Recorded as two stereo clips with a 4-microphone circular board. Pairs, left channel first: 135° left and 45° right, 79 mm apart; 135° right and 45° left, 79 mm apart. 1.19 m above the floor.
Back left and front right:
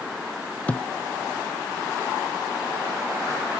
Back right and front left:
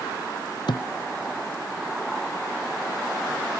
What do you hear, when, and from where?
0.7 s a thud: 155° right